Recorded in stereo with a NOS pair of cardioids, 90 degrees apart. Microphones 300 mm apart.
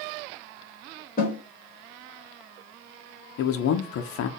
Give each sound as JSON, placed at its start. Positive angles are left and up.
{"t": 1.2, "sound": "a snare drum", "azimuth_deg": 30, "distance_m": 1.4}
{"t": 3.4, "sound": "a man speaking", "azimuth_deg": 55, "distance_m": 0.6}